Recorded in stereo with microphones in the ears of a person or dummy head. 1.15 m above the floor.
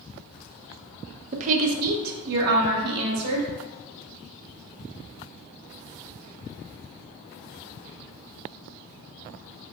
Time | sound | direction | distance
1.3 | a woman speaking | 40° right (ahead or behind) | 0.5 m